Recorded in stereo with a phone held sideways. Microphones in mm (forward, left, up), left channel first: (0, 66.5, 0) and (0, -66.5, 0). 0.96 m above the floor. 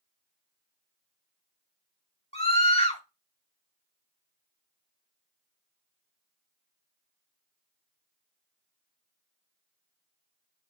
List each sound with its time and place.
2.3 s a scream: 50° left (ahead or behind), 3 m